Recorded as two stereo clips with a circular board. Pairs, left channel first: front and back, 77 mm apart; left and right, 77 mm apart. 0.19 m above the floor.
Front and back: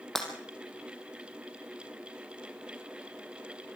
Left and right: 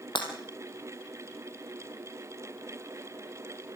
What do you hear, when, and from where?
0.1 s breaking glass: 85° left, 3.5 m